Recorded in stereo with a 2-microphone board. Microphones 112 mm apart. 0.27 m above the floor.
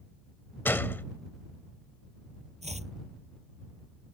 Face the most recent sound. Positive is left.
turn(degrees=-85)